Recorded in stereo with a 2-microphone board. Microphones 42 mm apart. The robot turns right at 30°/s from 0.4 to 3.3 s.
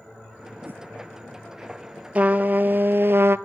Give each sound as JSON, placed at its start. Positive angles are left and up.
{"t": 0.7, "sound": "a whoosh", "side_deg": -50, "distance_m": 0.9}
{"t": 2.1, "sound": "a trumpet", "azimuth_deg": -140, "distance_m": 0.6}